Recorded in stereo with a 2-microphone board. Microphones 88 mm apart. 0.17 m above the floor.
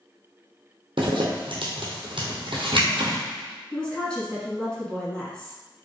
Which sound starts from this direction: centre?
A woman speaking, at 3.7 s.